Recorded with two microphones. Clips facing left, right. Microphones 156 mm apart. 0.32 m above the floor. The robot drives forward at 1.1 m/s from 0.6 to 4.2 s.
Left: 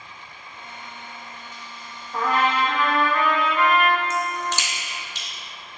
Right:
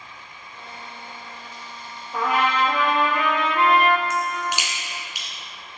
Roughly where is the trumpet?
Centre.